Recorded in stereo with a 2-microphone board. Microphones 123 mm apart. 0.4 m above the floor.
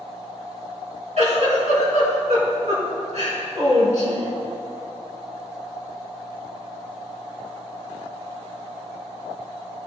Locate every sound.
1.2 s a giggle: 65° right (ahead or behind), 3 m